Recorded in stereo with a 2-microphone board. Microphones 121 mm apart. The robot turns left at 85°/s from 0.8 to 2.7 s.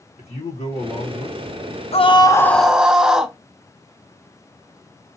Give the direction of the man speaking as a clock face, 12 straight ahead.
9 o'clock.